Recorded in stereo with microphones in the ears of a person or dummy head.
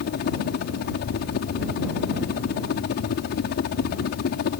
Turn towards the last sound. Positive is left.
turn(degrees=50)  # may be behind; listen again after turning